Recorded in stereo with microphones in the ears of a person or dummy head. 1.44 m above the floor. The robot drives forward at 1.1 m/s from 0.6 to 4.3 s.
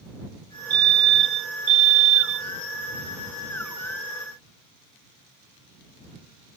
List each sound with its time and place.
0.7 s a fire alarm: 25° right (ahead or behind); by 2.5 s 40° right (ahead or behind)